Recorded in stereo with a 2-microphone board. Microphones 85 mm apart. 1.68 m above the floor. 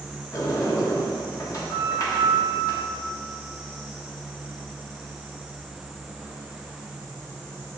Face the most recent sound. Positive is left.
turn(degrees=45)  # may be behind; listen again after turning